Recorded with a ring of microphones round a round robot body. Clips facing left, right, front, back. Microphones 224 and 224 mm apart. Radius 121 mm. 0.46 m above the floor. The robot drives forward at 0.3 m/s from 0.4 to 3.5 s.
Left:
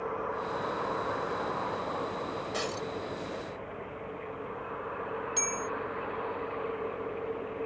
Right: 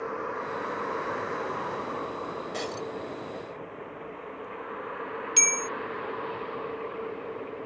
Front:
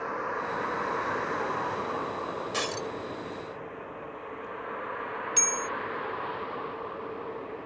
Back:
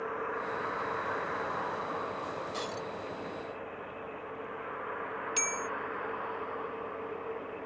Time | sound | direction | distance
0.0 | a vehicle | 30° right | ?
2.5 | breaking glass | 5° left | ?
5.4 | a bell | 100° right | ?